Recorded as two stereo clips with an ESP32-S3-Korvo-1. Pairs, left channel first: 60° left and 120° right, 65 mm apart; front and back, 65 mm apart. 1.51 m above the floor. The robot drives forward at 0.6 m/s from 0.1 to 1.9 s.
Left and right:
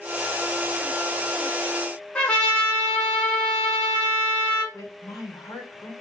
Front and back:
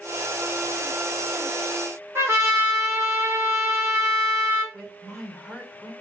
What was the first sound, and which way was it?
A trumpet, 135° left.